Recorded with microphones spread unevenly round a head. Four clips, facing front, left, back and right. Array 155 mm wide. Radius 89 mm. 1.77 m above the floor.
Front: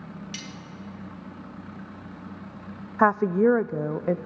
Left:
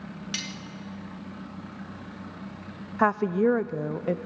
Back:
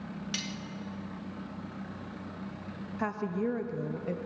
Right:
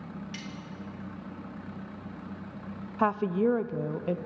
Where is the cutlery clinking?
145° left, 1.3 m.